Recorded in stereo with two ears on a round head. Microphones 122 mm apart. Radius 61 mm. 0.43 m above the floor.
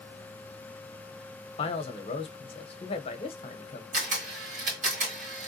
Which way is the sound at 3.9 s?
60° right (ahead or behind).